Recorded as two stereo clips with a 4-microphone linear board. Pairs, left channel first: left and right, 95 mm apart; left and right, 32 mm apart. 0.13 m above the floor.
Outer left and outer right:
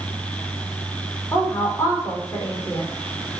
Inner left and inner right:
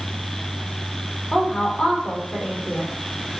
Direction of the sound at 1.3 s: 30° left (ahead or behind).